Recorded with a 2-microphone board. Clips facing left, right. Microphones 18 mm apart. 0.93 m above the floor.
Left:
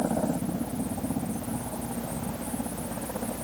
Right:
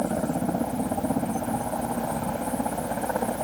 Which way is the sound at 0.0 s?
70° right (ahead or behind).